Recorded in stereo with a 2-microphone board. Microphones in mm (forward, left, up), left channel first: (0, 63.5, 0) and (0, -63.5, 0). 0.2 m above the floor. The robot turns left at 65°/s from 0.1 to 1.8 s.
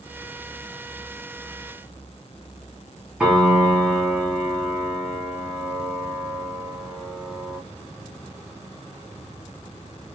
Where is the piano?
10° right (ahead or behind), 1.2 m.